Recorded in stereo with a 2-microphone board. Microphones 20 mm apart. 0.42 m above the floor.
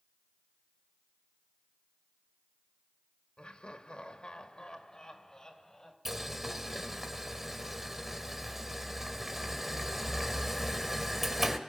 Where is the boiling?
10° right (ahead or behind), 1.9 m.